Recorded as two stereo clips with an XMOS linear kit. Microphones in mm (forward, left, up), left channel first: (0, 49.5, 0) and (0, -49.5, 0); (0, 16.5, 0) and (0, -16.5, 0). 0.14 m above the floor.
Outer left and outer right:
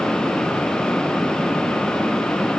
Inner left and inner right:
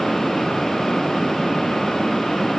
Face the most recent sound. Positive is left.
No sound to turn to.